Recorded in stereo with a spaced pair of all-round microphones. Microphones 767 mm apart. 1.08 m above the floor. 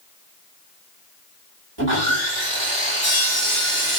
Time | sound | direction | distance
1.8 | sawing | 35° right (ahead or behind) | 1.2 m